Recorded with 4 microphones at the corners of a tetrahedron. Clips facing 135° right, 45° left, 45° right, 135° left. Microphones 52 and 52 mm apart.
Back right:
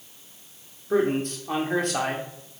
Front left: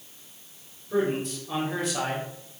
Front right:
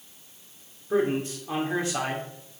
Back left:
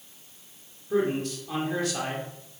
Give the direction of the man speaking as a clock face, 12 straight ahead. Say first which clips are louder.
Back right 3 dB, front right 1 dB; 4 o'clock.